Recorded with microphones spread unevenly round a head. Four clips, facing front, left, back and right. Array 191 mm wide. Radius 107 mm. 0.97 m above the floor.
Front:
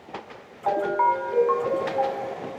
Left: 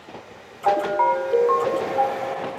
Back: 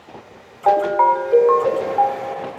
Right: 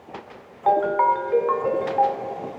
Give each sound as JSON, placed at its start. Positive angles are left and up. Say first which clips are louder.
{"t": 0.7, "sound": "a ringtone", "louder": "right 1 dB, back 7 dB", "azimuth_deg": 175, "distance_m": 1.4}